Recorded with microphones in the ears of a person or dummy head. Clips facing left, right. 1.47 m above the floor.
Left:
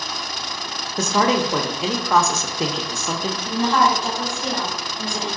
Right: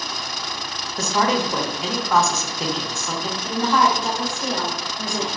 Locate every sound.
1.0 s a man speaking: 60° left (ahead or behind), 0.7 m
3.4 s a woman speaking: 15° right (ahead or behind), 1.7 m